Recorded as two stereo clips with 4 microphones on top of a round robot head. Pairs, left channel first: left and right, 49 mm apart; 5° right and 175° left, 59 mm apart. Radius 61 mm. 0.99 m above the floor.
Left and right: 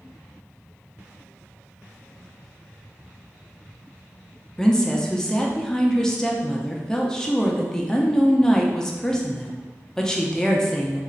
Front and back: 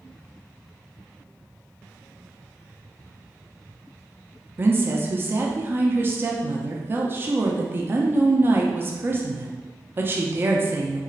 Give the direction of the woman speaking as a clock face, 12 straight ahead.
7 o'clock.